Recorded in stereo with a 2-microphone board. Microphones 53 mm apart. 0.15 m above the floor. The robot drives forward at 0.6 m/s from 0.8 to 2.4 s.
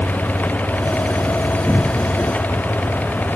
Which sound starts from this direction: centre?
A cupboard door, at 1.7 s.